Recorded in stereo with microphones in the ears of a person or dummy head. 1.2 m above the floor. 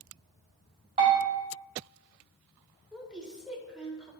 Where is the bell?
35° right (ahead or behind), 1.4 m.